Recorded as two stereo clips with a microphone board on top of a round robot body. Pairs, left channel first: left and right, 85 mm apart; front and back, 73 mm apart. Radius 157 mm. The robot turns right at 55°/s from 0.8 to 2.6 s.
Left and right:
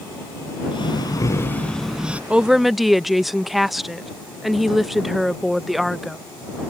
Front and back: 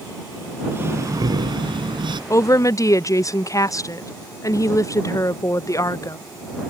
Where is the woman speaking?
20° right; by 6.2 s straight ahead.